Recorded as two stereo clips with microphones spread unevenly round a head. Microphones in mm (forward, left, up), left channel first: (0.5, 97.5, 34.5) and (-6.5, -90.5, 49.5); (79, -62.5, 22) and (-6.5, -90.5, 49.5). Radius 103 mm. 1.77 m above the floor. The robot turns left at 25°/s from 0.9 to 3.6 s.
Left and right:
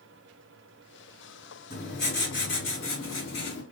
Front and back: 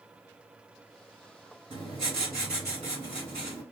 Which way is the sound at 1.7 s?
135° left.